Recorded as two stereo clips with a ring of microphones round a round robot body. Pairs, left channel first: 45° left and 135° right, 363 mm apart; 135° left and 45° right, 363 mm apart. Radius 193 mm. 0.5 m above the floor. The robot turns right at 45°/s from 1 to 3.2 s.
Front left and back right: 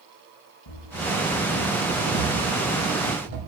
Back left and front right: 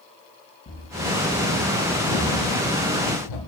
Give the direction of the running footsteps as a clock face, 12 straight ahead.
10 o'clock.